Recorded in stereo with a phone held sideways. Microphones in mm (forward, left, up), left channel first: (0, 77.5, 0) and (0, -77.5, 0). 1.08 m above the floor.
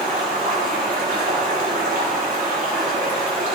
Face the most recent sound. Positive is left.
turn(degrees=-60)  # may be behind; listen again after turning